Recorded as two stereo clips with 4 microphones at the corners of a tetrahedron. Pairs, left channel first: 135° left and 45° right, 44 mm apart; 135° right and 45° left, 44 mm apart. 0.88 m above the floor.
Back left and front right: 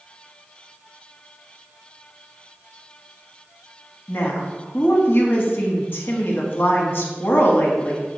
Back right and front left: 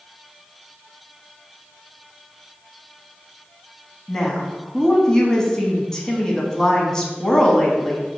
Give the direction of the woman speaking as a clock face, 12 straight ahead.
7 o'clock.